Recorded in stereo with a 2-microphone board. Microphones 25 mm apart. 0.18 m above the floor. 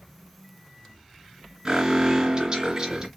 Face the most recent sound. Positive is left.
turn(degrees=-30)  # may be behind; listen again after turning